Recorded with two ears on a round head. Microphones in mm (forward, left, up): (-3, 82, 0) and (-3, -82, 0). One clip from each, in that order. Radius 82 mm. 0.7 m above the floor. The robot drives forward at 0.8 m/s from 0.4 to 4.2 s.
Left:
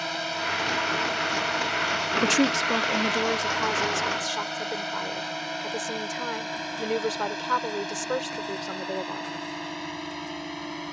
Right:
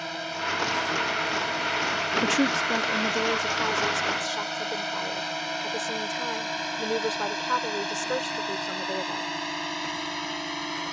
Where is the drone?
15° left (ahead or behind); by 10.9 s 35° right (ahead or behind).